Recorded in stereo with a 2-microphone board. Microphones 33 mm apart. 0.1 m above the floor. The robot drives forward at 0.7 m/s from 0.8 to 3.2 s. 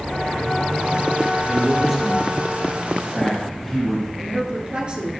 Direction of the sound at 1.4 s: 5° left (ahead or behind).